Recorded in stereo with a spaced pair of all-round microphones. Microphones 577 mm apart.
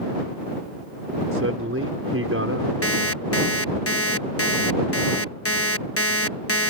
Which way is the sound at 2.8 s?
25° left (ahead or behind).